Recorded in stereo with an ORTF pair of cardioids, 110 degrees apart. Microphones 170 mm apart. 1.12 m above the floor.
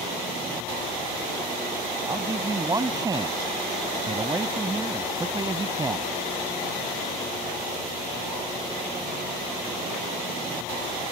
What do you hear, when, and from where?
2.0 s a man speaking: 20° right